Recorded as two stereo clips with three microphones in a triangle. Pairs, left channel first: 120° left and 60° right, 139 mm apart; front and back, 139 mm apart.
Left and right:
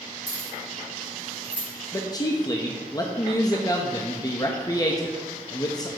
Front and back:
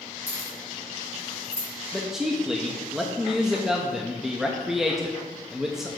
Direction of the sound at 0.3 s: 140° left.